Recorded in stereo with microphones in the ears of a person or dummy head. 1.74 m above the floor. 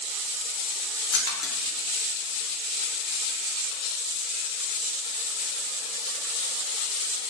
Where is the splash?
65° left (ahead or behind), 0.8 m.